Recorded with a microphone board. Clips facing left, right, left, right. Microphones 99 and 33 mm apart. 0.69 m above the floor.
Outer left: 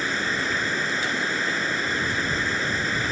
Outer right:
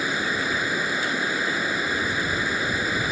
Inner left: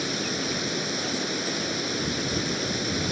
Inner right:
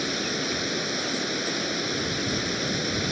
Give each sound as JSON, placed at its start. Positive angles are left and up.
{"t": 0.0, "sound": "running water", "side_deg": -10}